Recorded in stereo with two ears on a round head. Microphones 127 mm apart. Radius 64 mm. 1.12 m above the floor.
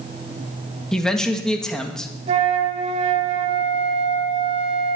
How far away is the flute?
About 2 m.